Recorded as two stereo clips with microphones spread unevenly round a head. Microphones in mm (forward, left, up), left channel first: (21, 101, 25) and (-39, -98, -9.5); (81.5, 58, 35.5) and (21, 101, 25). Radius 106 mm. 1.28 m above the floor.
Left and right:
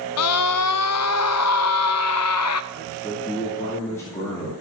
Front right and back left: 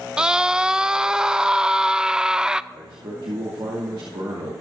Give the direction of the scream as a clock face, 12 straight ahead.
10 o'clock.